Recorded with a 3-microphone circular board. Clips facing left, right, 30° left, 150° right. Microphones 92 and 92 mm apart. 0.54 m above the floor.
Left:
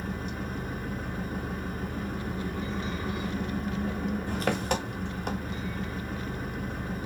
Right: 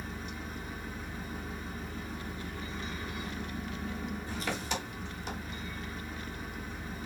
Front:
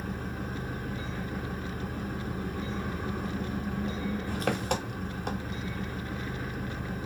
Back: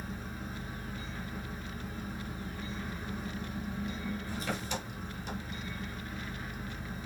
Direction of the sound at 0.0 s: 55° left.